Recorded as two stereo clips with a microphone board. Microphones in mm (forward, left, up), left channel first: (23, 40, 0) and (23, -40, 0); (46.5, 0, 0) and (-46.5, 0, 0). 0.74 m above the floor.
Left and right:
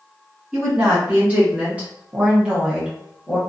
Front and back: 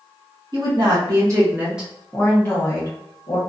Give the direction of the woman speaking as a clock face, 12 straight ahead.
5 o'clock.